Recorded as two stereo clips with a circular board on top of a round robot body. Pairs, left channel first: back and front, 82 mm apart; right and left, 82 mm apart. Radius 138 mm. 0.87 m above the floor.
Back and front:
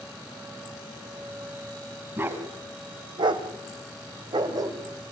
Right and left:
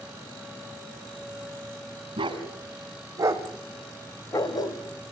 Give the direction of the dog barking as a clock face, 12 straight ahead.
10 o'clock.